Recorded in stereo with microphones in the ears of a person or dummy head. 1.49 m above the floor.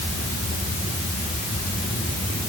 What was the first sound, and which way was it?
Only background noise.